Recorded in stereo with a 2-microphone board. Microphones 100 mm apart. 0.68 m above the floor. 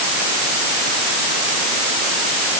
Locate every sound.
Only background noise.